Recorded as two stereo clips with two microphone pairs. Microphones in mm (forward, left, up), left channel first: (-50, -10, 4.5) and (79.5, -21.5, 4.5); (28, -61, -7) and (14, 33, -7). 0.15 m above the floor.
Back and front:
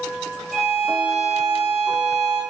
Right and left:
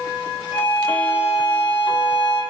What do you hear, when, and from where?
0.5 s a violin: 95° right, 6.5 m